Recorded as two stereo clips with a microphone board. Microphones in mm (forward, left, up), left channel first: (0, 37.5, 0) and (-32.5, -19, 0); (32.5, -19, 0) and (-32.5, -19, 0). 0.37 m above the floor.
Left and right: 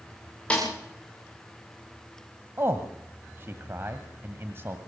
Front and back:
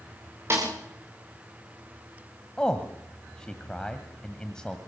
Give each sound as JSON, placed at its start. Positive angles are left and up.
{"t": 0.5, "sound": "a snare drum", "azimuth_deg": 130, "distance_m": 9.5}
{"t": 2.6, "sound": "a man speaking", "azimuth_deg": -75, "distance_m": 1.7}